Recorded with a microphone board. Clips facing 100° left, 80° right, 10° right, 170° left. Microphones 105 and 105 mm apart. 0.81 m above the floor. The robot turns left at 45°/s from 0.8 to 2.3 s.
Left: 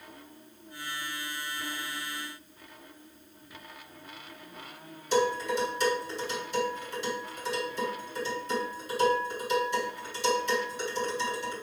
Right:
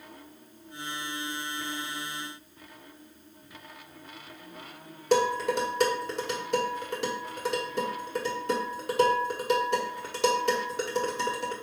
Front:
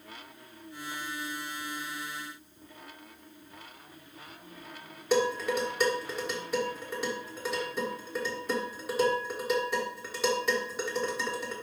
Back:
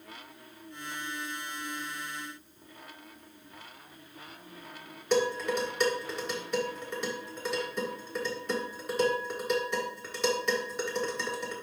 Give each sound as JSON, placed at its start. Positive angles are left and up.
{"t": 5.1, "sound": "dishes clattering", "azimuth_deg": -95, "distance_m": 1.8}